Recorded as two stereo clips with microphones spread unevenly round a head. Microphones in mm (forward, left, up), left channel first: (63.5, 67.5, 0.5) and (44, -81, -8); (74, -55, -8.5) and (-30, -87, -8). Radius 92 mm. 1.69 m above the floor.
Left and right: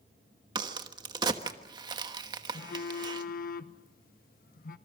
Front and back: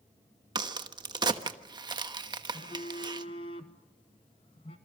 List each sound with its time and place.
0.6 s a crack: 155° right, 1.2 m
2.5 s a phone buzzing: 70° left, 1.2 m